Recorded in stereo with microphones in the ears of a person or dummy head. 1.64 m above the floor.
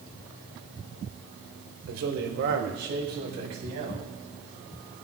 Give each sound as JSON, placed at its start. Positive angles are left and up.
{"t": 1.9, "sound": "a man speaking", "side_deg": -70, "distance_m": 1.8}